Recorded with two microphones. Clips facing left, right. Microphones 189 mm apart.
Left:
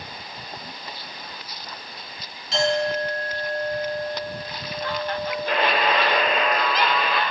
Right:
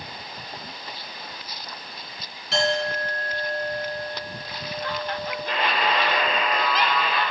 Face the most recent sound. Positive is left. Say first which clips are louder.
# left 3 dB
turn(degrees=65)  # may be behind; listen again after turning